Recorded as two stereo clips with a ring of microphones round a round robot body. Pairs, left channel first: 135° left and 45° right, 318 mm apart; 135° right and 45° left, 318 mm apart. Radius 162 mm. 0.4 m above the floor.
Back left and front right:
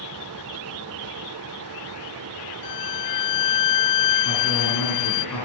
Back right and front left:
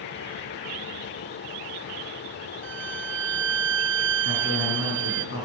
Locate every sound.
2.6 s a violin: 100° left, 0.7 m
4.2 s a man speaking: 170° left, 7 m